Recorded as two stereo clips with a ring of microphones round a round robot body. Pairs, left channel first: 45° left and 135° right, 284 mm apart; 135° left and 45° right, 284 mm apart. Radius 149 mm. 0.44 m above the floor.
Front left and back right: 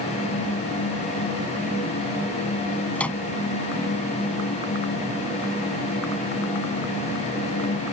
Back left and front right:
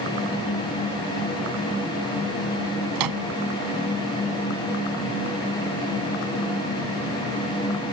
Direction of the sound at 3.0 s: 40° right.